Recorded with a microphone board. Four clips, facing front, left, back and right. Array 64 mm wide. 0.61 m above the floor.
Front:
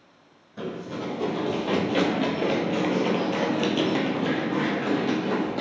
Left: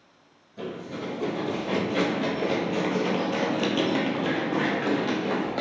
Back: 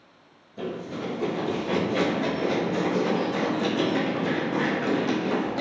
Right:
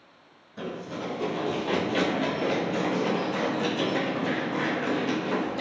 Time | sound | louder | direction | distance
0.6 | running footsteps | even, even | 40° right | 1.6 m